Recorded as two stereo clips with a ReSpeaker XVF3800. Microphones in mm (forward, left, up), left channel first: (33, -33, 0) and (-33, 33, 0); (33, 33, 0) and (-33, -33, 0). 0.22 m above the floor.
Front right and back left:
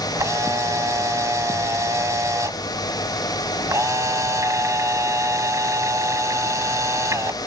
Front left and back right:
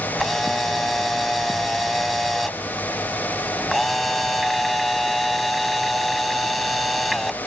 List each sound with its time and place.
0.2 s a camera shutter: 135° left